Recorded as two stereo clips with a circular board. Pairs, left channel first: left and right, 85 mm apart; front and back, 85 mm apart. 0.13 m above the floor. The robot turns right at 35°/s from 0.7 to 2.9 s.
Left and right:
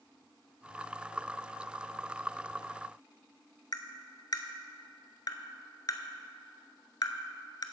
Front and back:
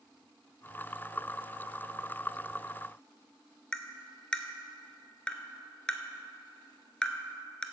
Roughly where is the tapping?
Left.